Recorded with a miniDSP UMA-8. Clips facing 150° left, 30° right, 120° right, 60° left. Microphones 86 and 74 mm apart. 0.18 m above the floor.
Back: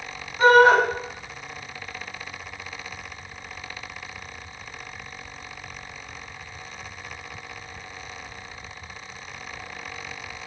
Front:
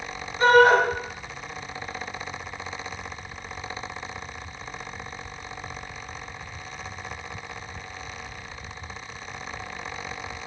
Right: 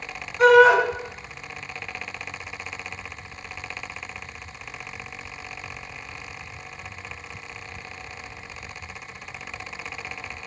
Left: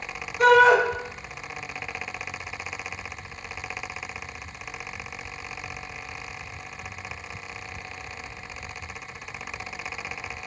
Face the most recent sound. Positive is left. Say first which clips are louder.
# back 1 dB, right 2 dB
turn(degrees=160)